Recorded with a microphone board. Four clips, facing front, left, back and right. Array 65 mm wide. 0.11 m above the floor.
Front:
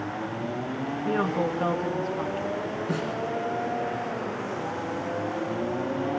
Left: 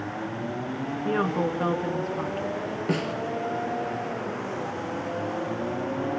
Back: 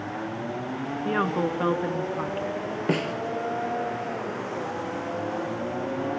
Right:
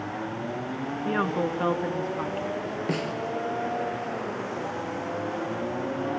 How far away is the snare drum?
About 1.6 m.